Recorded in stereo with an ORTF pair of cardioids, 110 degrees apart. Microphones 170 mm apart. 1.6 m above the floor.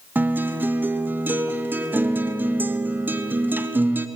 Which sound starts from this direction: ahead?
A guitar, at 0.1 s.